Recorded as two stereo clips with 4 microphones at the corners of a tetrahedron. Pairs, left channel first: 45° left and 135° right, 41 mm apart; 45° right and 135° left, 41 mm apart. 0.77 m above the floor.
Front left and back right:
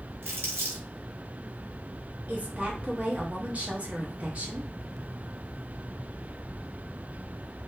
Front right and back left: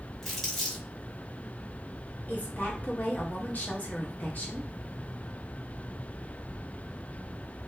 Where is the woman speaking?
85° right, 0.9 m.